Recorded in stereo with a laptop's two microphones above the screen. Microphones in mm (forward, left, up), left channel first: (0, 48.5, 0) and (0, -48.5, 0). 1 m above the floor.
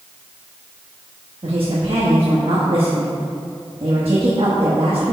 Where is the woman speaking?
60° right (ahead or behind), 1.2 m.